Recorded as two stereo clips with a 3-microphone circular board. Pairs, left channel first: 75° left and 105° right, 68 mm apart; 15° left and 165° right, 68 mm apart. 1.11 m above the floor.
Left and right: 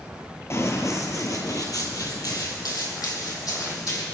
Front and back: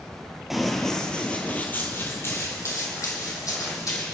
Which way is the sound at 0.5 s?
110° left.